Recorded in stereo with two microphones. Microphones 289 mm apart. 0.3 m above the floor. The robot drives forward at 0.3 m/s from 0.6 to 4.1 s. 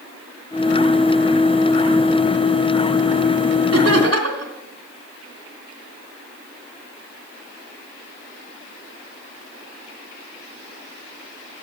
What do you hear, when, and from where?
3.7 s laughter: 60° right (ahead or behind), 2.5 m